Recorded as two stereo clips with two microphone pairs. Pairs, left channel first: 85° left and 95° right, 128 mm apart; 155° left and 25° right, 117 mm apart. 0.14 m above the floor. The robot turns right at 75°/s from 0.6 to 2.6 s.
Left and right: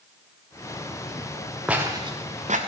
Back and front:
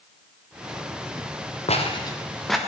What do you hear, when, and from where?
1.7 s footsteps: straight behind, 2.5 m; by 2.6 s 110° right, 2.5 m